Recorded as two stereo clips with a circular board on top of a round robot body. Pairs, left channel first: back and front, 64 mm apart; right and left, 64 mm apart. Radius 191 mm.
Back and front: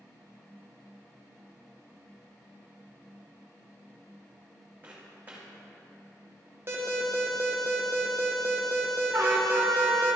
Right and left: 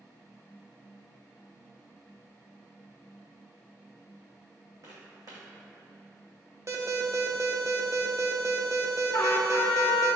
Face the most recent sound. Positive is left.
turn(degrees=-50)